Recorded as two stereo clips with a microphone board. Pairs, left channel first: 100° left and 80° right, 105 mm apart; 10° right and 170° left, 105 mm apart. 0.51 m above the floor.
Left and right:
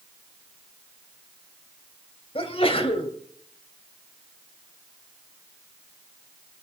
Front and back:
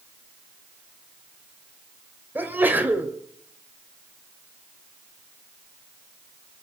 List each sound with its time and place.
2.4 s a sneeze: 100° left, 2.5 m